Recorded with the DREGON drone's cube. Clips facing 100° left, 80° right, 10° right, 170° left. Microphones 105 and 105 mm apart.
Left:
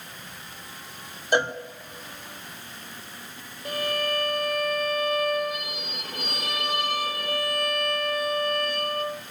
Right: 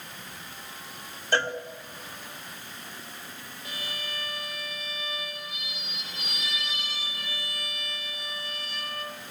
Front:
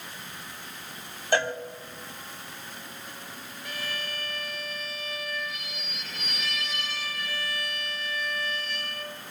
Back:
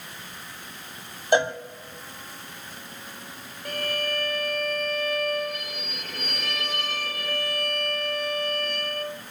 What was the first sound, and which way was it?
A cowbell, 140° left.